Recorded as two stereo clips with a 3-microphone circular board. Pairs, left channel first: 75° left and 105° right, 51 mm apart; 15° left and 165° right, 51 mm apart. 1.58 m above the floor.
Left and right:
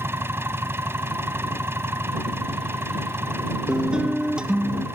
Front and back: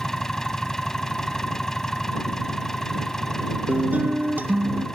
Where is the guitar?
160° right.